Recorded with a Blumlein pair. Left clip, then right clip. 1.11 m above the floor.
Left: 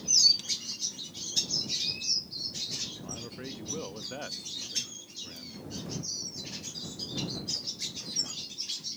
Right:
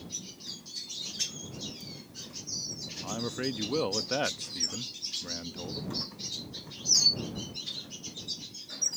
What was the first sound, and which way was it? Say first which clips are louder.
A man speaking: right 7 dB; 25° right.